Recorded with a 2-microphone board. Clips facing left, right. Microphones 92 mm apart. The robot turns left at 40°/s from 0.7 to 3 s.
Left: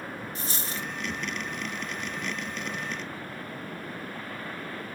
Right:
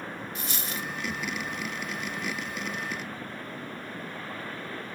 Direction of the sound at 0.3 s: 35° left (ahead or behind).